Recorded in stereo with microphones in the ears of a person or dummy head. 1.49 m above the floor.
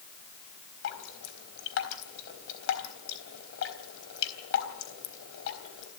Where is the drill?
No drill in this recording.